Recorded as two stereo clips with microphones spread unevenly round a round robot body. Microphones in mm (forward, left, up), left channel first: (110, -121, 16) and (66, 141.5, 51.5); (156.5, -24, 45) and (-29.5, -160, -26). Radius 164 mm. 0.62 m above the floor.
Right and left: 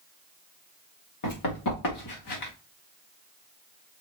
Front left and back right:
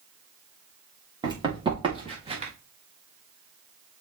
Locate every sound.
1.2 s running footsteps: 70° right, 4.5 m; by 2.5 s 80° right, 3.5 m